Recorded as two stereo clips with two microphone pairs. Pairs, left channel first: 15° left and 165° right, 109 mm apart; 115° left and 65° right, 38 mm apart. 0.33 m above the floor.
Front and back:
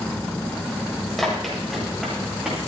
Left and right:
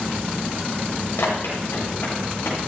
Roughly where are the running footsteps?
Left.